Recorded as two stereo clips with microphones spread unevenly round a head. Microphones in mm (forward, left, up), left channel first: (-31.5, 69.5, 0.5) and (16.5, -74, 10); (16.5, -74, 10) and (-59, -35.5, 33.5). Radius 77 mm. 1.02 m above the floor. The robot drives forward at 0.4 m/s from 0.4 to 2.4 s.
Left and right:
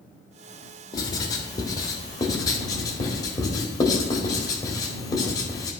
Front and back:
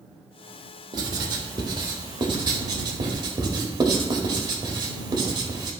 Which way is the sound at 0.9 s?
175° left.